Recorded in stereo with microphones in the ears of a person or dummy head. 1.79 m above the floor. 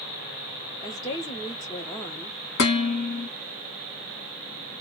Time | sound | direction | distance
0.8 | a woman speaking | 20° left (ahead or behind) | 0.7 m
2.6 | dishes clattering | 60° left (ahead or behind) | 1.7 m